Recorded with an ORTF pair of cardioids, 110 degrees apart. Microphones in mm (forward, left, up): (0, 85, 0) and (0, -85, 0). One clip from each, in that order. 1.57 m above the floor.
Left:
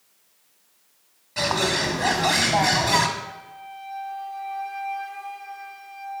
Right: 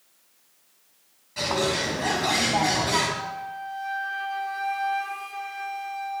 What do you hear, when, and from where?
1.4 s a bird: 35° left, 1.6 m
3.2 s a flute: 65° right, 1.3 m